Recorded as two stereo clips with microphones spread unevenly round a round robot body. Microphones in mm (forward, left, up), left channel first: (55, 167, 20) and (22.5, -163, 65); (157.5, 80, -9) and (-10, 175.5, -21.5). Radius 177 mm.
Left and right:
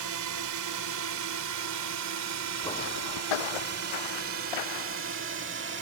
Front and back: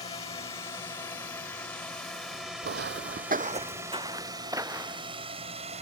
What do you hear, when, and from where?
0.0 s a drone: 90° right; by 5.8 s 155° right
2.6 s footsteps: 175° left; by 5.2 s 70° left